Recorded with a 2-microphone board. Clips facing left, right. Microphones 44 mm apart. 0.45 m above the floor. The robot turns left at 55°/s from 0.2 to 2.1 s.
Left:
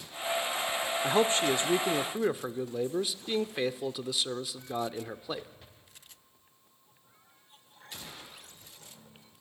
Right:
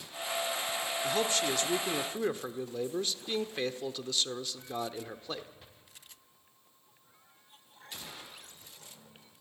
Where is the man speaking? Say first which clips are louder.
Left 5 dB; 75° left, 0.8 m; by 5.5 s 20° left, 0.8 m.